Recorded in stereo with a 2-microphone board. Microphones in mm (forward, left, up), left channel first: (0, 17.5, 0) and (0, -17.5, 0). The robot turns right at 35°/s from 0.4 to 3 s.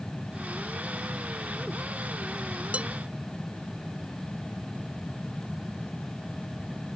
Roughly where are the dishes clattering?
Right.